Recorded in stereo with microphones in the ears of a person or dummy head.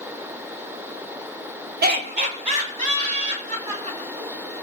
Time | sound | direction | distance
1.8 | laughter | 55° right (ahead or behind) | 0.9 m